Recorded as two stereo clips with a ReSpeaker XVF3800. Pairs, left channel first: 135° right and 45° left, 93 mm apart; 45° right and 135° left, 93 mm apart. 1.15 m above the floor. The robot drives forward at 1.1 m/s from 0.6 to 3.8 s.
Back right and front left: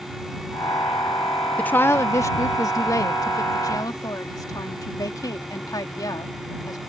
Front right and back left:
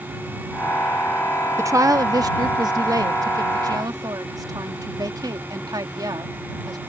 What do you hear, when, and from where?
1.6 s a woman speaking: 160° left; by 6.8 s 175° left